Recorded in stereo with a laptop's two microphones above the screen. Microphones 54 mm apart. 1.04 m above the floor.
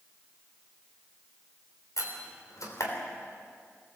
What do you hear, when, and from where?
2.0 s a door slam: 80° left, 3.5 m